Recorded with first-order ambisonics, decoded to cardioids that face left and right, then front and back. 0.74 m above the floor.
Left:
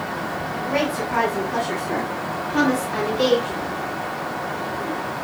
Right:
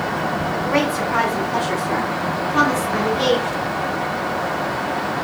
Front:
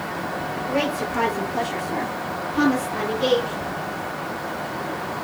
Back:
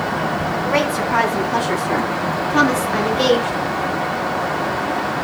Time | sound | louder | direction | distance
0.5 | a woman speaking | right 2 dB, back 4 dB | 165° right | 5.5 m